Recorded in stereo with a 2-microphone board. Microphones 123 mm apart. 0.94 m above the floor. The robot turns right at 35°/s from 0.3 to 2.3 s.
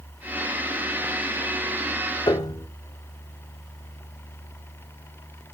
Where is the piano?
35° left (ahead or behind), 1.2 m; by 2.7 s 30° left (ahead or behind), 1.2 m.